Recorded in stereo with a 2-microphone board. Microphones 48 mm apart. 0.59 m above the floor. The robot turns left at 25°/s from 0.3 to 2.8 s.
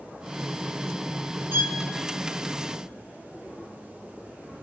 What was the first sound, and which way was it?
A violin, 55° right (ahead or behind).